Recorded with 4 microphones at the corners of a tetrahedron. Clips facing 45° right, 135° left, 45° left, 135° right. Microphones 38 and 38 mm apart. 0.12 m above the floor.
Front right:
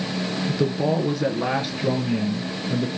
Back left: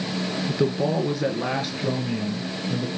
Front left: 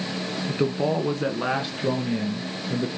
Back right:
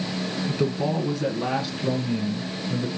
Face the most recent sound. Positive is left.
turn(degrees=25)